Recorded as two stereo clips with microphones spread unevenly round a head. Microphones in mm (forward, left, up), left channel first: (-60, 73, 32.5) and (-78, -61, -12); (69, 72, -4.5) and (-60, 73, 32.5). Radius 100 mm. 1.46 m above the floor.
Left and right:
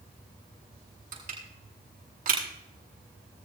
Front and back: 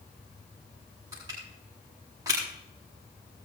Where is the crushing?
105° right, 8 m.